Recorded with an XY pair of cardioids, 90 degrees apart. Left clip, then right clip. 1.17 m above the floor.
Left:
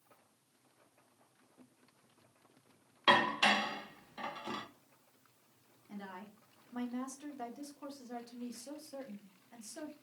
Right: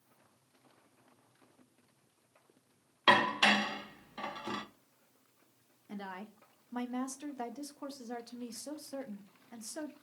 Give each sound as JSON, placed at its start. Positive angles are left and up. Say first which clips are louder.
{"t": 3.1, "sound": "dishes clattering", "louder": "right 2 dB", "azimuth_deg": -30, "distance_m": 0.5}
{"t": 5.9, "sound": "a woman speaking", "louder": "right 4 dB", "azimuth_deg": -55, "distance_m": 0.6}